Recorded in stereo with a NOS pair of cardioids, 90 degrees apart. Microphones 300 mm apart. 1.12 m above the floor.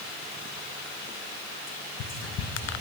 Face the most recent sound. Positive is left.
turn(degrees=60)